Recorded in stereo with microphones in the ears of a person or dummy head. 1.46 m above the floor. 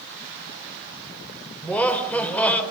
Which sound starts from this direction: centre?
Laughter, at 1.6 s.